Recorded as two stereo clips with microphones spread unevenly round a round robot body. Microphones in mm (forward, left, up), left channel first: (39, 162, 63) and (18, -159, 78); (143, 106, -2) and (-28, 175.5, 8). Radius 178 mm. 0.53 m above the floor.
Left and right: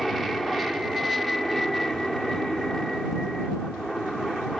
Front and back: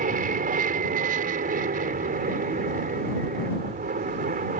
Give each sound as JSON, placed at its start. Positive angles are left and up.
{"t": 0.0, "sound": "an aircraft", "azimuth_deg": 175}